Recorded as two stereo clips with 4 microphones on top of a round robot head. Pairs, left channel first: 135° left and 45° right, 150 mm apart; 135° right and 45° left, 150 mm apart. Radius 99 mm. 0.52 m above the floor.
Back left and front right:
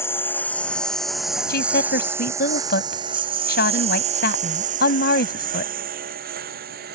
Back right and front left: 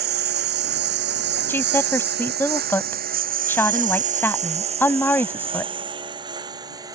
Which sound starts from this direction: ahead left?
A lawn mower, at 0.0 s.